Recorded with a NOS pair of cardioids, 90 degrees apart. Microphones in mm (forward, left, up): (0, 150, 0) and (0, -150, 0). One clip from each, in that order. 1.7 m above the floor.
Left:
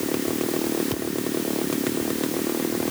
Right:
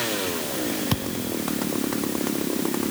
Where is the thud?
60° right.